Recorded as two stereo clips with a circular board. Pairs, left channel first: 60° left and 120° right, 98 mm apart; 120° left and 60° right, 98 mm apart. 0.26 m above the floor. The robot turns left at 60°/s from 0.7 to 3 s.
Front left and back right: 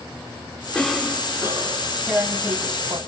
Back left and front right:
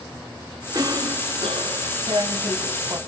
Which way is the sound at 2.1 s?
40° right.